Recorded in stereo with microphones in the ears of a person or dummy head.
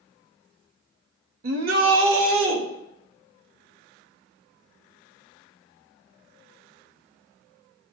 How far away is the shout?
About 1.3 m.